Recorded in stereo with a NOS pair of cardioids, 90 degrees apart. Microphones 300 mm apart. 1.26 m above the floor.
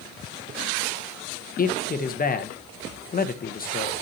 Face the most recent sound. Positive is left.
turn(degrees=30)